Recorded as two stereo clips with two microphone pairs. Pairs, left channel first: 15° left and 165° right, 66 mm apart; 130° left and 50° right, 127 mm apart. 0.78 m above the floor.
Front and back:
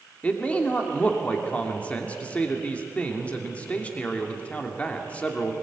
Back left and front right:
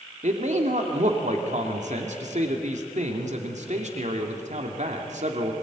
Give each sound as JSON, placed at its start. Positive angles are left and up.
{"t": 0.2, "sound": "a man speaking", "azimuth_deg": -55, "distance_m": 2.5}